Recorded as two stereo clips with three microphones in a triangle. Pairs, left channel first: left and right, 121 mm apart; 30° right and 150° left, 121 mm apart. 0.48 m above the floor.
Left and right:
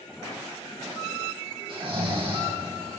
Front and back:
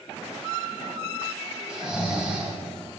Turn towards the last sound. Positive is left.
turn(degrees=-125)